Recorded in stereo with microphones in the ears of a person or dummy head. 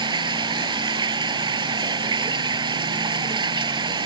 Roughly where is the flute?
I don't hear a flute.